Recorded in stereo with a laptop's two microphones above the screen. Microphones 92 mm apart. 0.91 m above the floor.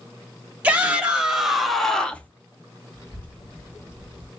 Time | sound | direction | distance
0.6 | a shout | 15° right (ahead or behind) | 1.8 m
2.9 | a child speaking | 25° left (ahead or behind) | 1.8 m